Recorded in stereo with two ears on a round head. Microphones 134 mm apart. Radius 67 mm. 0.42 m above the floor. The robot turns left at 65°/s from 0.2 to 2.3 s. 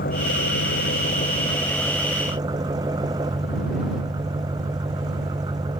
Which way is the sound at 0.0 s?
110° left.